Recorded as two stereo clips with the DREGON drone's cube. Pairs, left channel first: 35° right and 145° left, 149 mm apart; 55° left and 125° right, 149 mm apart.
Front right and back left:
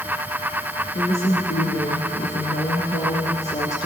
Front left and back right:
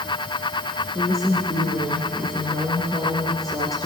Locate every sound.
0.9 s a woman speaking: 5° right, 2.5 m